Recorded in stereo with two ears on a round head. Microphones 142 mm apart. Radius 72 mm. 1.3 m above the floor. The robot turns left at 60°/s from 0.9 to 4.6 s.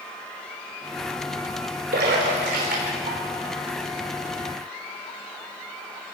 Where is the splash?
65° right (ahead or behind), 5.5 m; by 3.2 s 40° right (ahead or behind), 5.5 m.